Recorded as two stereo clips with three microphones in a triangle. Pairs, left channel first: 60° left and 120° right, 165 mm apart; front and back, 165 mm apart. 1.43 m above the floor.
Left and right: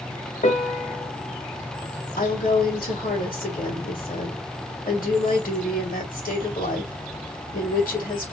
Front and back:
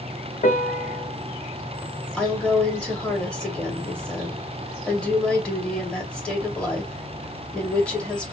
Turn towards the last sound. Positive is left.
turn(degrees=85)